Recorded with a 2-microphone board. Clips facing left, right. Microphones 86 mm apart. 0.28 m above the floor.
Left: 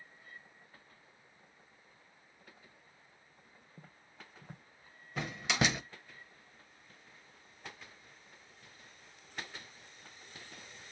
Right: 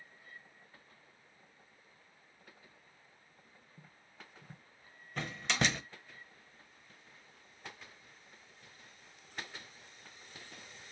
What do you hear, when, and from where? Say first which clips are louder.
3.8 s footsteps: left 2 dB; 60° left (ahead or behind), 0.7 m
5.2 s a door slam: left 1 dB; 5° left (ahead or behind), 0.6 m